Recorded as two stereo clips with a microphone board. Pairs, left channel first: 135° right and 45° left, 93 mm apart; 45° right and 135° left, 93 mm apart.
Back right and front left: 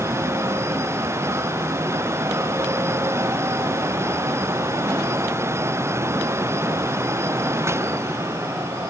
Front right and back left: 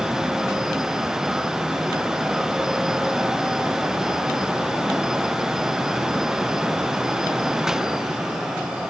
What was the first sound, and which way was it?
Only background noise.